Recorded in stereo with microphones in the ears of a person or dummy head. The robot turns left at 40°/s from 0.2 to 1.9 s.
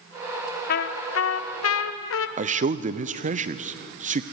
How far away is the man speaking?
About 0.7 m.